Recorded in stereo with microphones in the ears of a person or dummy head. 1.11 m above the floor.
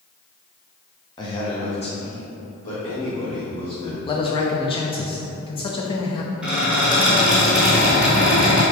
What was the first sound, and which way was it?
A man speaking, 20° left (ahead or behind).